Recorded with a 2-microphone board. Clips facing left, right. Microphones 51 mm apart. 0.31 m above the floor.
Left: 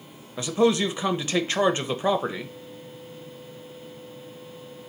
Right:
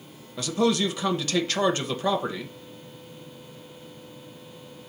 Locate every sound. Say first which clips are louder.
0.4 s a man speaking: left 2 dB; 25° left (ahead or behind), 0.9 m